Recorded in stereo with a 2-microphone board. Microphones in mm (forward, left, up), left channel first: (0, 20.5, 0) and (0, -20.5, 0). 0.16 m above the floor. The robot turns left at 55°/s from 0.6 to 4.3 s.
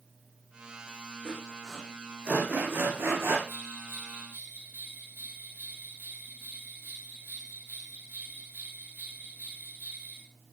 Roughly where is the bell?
Right.